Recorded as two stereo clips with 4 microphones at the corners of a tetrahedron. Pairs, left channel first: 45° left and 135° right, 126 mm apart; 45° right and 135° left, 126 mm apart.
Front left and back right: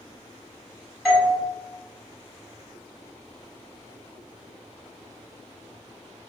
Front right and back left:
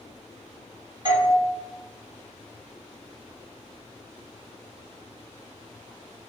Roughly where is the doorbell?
Behind left.